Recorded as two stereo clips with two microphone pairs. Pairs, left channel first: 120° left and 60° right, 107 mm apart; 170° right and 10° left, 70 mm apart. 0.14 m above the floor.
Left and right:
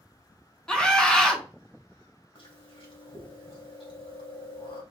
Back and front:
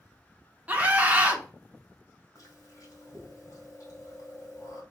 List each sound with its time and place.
0.7 s a scream: 50° left, 1.8 m
2.4 s chewing: 150° left, 3 m